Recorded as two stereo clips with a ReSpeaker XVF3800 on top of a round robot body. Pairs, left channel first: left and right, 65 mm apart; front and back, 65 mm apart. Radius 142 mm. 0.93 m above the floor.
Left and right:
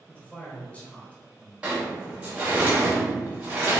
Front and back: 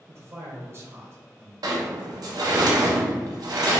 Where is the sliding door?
165° right, 0.6 m.